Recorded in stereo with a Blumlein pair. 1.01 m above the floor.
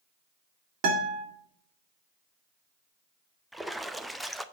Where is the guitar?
50° right, 2.5 m.